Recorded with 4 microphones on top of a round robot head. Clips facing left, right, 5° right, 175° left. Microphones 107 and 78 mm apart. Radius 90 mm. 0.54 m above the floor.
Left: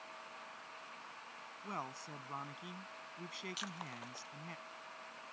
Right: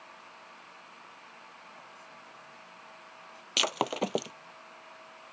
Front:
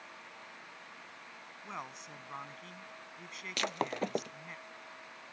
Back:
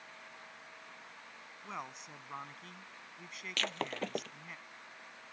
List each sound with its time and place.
1.6 s a man speaking: 85° left
3.6 s breaking glass: 80° right